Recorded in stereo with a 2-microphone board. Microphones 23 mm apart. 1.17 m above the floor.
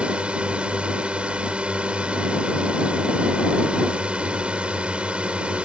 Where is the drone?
50° right (ahead or behind).